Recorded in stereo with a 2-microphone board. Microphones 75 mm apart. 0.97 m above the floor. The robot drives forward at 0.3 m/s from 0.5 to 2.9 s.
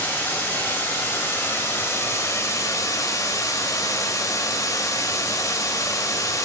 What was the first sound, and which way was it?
Running water, 25° left (ahead or behind).